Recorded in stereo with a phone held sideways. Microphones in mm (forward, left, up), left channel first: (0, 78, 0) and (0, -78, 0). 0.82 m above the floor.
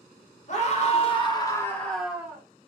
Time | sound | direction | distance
0.5 | a scream | 50° left (ahead or behind) | 1.3 m